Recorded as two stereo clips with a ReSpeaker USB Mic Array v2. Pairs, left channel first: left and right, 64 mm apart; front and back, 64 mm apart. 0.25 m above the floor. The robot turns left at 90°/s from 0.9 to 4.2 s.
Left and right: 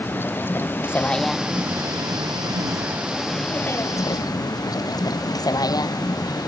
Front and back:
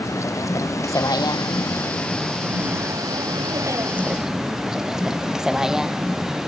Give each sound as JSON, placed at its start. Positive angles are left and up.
{"t": 0.0, "sound": "a vehicle", "azimuth_deg": 35}